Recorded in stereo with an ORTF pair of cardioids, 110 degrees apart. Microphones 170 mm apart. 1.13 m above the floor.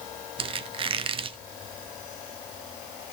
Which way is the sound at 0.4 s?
35° right.